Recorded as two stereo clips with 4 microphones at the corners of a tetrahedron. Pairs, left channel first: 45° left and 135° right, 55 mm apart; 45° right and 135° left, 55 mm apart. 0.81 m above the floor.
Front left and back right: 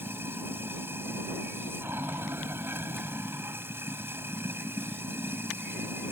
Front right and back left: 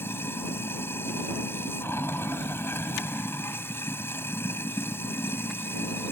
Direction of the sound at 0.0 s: 90° right.